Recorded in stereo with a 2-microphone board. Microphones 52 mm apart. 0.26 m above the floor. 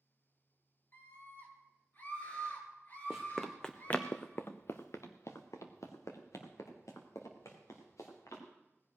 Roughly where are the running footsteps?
Centre.